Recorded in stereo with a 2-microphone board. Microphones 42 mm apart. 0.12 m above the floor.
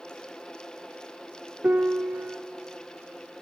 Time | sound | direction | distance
1.6 | a piano | 45° right (ahead or behind) | 0.6 m